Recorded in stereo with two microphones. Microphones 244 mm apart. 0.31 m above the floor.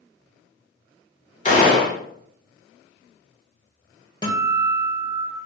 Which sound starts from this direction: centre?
A guitar, at 4.2 s.